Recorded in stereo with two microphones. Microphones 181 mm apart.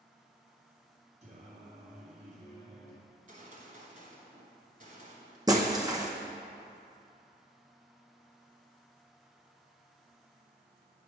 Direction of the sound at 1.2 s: 40° right (ahead or behind).